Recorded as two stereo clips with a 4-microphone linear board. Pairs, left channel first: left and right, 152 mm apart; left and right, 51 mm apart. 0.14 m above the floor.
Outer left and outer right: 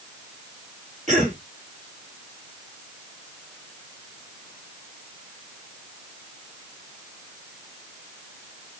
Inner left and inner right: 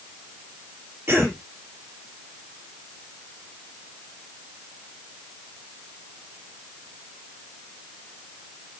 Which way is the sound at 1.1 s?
50° right (ahead or behind).